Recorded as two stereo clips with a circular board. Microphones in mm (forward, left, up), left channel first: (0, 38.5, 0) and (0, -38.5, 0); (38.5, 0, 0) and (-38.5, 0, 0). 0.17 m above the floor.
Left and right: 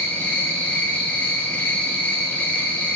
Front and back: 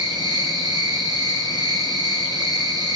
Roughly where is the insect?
Behind.